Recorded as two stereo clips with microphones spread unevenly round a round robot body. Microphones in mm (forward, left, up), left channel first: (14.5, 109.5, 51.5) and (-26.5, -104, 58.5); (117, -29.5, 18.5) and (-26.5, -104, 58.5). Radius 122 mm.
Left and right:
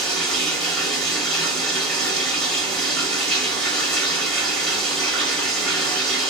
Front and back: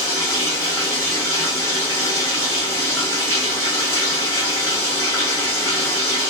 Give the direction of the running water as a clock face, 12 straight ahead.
12 o'clock.